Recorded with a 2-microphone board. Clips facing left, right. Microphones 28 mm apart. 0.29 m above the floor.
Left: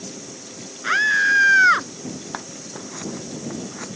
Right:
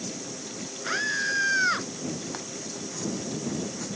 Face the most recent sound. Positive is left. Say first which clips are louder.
# left 3 dB
turn(degrees=35)  # may be behind; listen again after turning